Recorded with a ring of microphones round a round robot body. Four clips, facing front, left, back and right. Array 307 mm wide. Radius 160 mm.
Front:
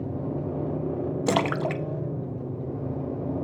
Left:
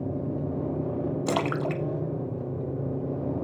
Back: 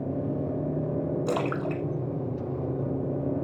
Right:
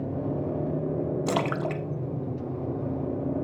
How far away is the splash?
About 0.8 m.